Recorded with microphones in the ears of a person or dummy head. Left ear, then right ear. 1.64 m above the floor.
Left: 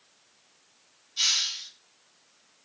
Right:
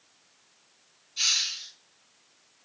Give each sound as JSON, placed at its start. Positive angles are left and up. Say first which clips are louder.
{"t": 1.2, "sound": "a hiss", "louder": "even", "side_deg": 15, "distance_m": 1.3}